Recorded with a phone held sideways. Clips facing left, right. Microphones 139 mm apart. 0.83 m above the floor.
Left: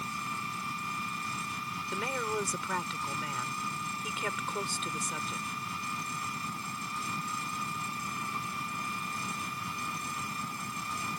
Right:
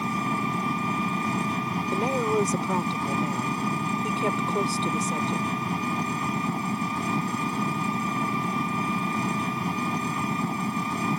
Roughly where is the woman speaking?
Right.